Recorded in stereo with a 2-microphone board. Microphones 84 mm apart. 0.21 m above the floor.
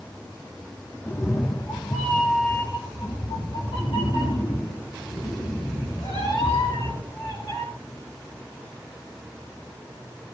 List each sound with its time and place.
1.1 s a cat meowing: 25° left (ahead or behind), 0.8 m; by 7.6 s 80° left, 5.5 m